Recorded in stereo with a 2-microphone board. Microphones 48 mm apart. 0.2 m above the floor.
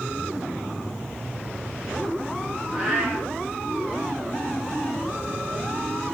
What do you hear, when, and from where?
2.7 s a cat meowing: 10° right (ahead or behind), 8.5 m